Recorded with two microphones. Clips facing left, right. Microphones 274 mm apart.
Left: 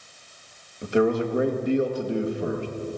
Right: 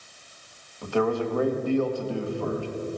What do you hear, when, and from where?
0.8 s a man speaking: 20° left (ahead or behind), 1.4 m